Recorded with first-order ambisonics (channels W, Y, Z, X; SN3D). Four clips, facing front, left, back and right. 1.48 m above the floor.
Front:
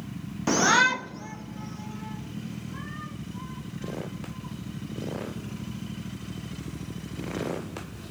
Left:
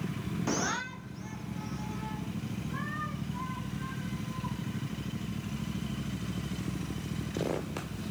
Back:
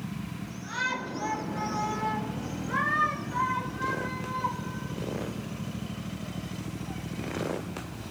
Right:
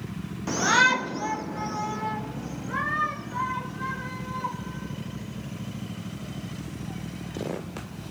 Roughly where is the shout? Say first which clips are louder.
Right 14 dB, front 12 dB; ahead.